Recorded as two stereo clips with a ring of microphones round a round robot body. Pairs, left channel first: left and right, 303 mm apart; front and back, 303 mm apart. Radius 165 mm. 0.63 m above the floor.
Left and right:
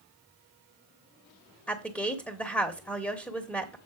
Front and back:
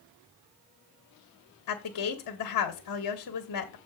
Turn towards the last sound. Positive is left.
turn(degrees=5)